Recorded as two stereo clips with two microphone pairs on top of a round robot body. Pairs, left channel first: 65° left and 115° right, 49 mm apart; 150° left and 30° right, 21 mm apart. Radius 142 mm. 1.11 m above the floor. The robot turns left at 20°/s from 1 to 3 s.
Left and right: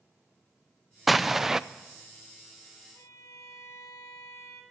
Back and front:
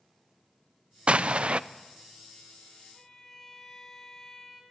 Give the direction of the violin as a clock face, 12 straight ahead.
9 o'clock.